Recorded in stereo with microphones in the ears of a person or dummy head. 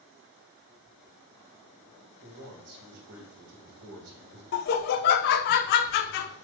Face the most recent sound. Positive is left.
turn(degrees=45)  # may be behind; listen again after turning